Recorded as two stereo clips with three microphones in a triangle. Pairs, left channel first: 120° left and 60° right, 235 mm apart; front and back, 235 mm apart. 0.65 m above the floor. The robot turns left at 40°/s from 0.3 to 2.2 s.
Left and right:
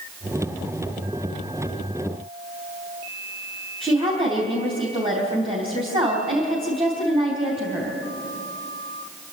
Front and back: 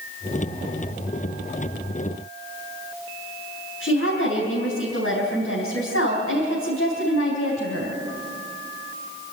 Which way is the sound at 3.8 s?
5° left.